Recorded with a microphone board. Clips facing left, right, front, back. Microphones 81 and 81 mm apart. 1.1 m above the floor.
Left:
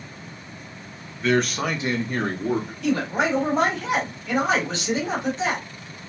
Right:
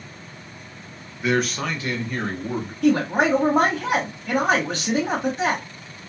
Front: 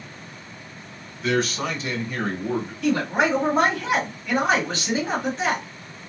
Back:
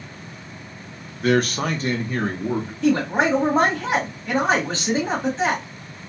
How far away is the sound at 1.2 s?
About 0.8 m.